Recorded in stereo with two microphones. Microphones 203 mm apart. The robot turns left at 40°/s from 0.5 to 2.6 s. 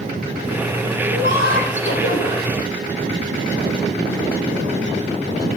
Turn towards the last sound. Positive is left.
turn(degrees=70)